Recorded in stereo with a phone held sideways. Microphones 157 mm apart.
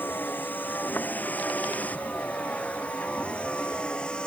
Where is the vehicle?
10° left (ahead or behind); by 4.3 s 5° left (ahead or behind).